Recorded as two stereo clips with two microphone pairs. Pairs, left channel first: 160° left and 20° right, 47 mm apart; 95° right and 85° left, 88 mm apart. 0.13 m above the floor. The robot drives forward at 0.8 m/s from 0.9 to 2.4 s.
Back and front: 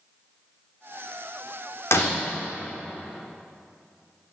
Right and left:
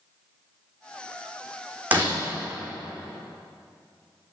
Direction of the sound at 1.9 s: 155° left.